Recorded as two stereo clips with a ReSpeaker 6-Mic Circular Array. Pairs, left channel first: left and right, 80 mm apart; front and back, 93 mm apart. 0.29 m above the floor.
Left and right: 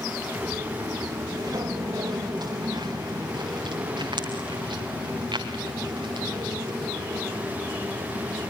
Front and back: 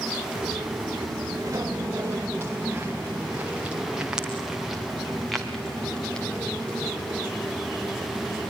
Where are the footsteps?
135° right, 3 m; by 8.5 s 70° right, 4.5 m.